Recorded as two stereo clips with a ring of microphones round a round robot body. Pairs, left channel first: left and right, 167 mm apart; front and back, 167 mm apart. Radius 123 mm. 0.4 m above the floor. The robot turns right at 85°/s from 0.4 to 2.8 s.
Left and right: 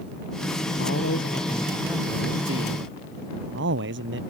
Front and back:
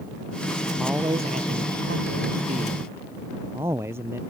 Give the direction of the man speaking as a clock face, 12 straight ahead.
9 o'clock.